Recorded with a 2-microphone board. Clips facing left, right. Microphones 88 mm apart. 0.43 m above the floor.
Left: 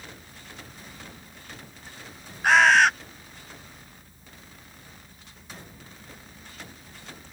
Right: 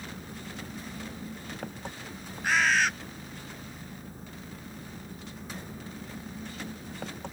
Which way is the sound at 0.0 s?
65° right (ahead or behind).